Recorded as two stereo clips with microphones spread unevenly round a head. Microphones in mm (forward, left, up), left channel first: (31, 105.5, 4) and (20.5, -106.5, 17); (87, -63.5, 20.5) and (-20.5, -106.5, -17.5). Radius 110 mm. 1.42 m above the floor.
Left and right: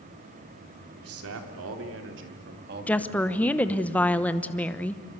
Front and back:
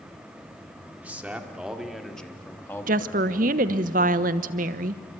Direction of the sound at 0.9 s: 80° right.